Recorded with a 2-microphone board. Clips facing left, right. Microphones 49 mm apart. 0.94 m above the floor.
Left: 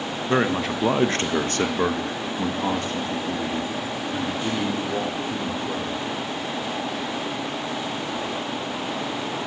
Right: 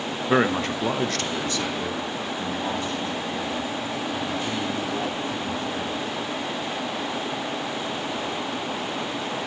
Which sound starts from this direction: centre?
A man speaking, at 0.3 s.